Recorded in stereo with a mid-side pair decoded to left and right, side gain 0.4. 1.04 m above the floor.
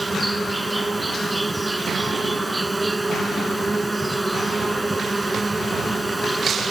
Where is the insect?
15° right.